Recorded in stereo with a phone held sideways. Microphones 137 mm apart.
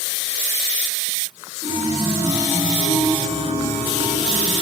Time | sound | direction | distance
1.6 | a chime | 50° right (ahead or behind) | 8.5 m